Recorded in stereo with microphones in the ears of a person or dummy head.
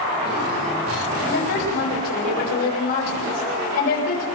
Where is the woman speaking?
45° left (ahead or behind), 8.5 m.